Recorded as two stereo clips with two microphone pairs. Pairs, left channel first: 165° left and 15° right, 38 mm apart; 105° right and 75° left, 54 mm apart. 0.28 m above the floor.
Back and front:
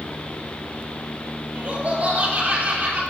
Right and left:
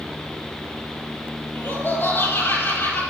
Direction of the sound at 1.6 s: 50° right.